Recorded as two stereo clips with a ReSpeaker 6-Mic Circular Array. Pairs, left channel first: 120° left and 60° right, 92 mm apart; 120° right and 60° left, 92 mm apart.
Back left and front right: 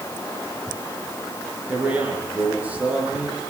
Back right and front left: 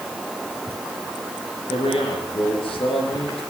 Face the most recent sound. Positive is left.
turn(degrees=-135)